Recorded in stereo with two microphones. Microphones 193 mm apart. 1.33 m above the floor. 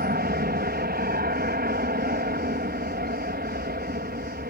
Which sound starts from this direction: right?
An aircraft, at 0.0 s.